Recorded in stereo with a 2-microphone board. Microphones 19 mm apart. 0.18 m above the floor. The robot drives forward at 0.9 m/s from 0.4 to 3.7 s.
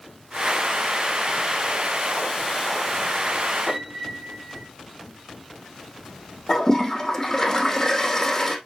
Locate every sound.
3.7 s a piano: centre (ahead or behind), 4.5 m
6.5 s a toilet flushing: 20° left (ahead or behind), 2.5 m